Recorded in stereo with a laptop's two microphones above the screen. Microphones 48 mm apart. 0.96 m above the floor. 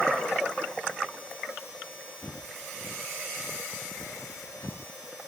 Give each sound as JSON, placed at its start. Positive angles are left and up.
{"t": 2.2, "sound": "footsteps", "side_deg": 80}